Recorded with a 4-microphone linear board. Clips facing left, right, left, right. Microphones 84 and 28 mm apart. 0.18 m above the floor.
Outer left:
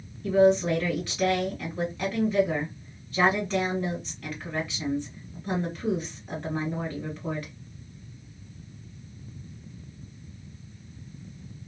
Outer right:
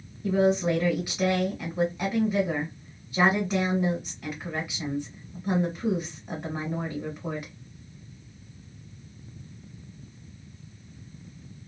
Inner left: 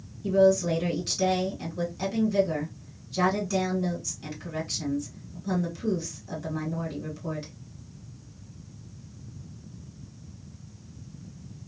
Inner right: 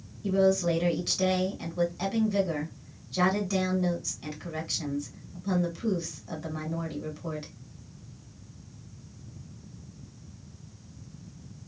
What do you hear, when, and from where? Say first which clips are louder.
0.2 s a woman speaking: outer left 3 dB, inner left 3 dB; 15° right (ahead or behind), 1.7 m